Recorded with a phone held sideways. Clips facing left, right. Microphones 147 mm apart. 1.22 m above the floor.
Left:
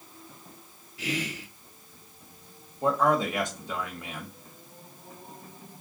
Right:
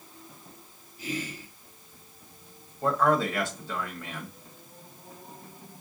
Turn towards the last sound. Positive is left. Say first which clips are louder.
# even
turn(degrees=15)  # may be behind; listen again after turning